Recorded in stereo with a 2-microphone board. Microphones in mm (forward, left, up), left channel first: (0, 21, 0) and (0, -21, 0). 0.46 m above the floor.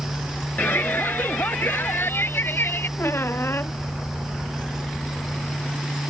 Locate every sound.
0.6 s a shout: 55° left (ahead or behind); by 2.9 s 65° left (ahead or behind)
3.0 s a squeak: 75° left (ahead or behind)